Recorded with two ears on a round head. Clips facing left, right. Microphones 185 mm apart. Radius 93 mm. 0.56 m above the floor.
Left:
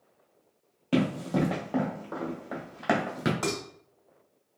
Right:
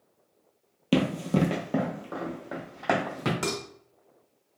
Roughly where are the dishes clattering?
Right.